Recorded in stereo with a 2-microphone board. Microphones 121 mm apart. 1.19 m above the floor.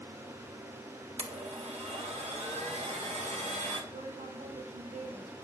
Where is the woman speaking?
85° right, 3.5 m.